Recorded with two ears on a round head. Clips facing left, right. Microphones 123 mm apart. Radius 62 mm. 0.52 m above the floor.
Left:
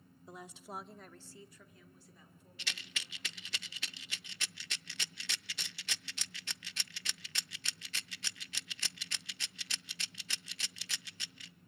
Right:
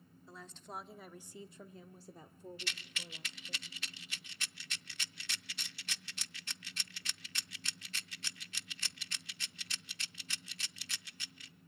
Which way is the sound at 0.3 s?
15° left (ahead or behind).